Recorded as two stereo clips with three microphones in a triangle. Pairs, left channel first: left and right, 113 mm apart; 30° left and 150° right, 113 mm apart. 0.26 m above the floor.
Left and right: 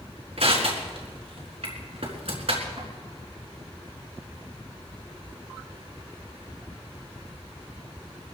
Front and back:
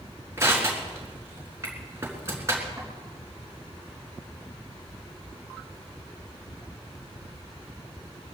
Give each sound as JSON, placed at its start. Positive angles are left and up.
{"t": 0.4, "sound": "crushing", "azimuth_deg": -90, "distance_m": 4.0}